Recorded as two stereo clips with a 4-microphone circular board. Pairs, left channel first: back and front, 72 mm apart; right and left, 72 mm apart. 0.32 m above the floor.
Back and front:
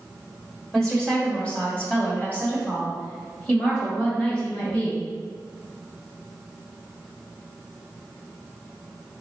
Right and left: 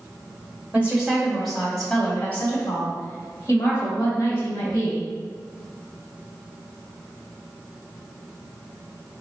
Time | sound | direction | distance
0.7 | a woman speaking | 105° left | 1.2 m